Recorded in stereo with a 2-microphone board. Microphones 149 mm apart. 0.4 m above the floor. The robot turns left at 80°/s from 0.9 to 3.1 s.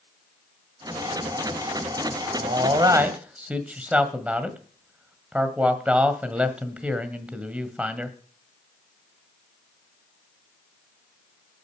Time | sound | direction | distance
2.4 | a man speaking | 115° right | 1.6 m